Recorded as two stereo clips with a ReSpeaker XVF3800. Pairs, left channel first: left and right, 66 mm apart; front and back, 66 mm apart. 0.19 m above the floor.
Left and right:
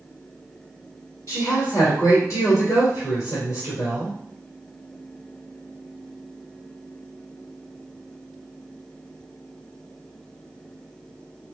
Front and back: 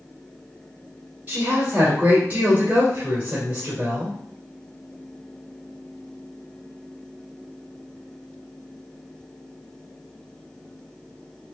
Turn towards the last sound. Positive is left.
turn(degrees=115)